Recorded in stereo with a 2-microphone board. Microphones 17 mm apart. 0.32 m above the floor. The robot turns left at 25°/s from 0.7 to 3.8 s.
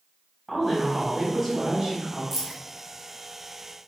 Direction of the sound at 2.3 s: 15° right (ahead or behind).